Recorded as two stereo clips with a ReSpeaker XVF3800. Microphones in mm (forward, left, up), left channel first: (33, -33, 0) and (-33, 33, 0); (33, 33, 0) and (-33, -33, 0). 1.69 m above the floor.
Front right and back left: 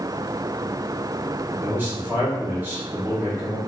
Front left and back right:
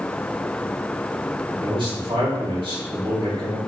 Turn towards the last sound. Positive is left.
turn(degrees=-155)